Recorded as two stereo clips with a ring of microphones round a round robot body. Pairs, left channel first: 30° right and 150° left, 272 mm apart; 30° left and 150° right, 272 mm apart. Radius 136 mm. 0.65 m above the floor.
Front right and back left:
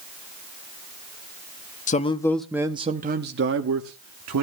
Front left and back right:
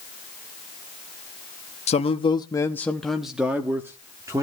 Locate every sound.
1.9 s a man speaking: 10° right, 0.7 m; by 4.4 s 135° left, 1.3 m